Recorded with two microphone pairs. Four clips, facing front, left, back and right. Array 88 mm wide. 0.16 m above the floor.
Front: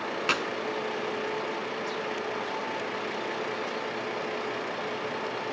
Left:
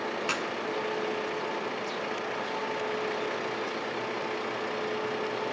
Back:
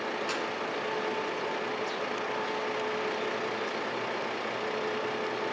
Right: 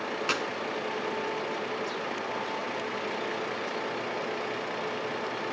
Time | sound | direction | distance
0.3 | a clap | 10° right | 1.2 m